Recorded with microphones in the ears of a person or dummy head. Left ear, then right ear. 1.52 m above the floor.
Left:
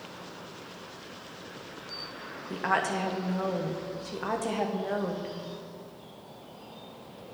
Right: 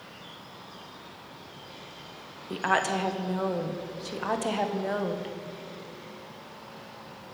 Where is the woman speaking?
10° right (ahead or behind), 0.6 m.